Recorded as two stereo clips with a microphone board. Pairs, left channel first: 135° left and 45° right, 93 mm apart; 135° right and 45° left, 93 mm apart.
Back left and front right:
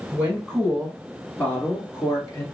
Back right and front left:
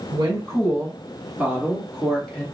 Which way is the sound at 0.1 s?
40° left.